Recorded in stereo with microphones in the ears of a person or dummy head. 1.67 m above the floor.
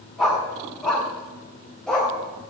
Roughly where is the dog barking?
Centre.